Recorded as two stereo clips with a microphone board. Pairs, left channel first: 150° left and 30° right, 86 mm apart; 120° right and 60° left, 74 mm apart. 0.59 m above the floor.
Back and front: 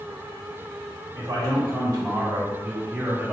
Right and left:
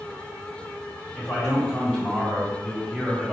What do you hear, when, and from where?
1.1 s a man speaking: 55° right, 1.5 m; by 3.3 s 15° left, 0.8 m